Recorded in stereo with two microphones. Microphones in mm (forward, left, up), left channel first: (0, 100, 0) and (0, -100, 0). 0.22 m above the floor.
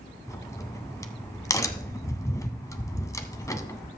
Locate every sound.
0.3 s a crack: 15° left (ahead or behind), 0.9 m